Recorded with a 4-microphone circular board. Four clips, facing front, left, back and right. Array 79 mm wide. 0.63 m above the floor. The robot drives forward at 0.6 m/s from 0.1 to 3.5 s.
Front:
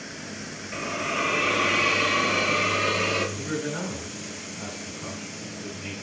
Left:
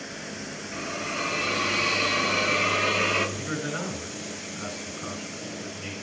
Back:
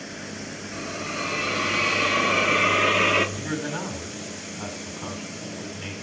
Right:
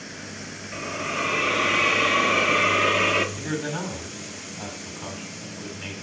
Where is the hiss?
30° right, 1.3 m; by 3.3 s 150° right, 1.3 m.